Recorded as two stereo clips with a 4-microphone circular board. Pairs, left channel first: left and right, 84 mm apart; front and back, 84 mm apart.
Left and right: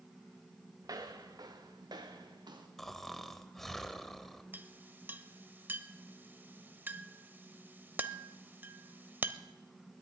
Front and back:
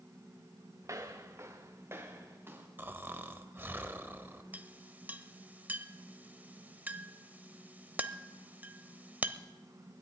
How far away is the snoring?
About 0.9 m.